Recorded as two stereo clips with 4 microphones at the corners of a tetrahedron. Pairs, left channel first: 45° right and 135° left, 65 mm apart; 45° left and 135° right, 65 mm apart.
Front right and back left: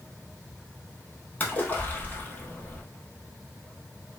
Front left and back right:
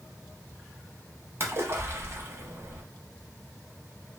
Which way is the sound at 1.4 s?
100° right.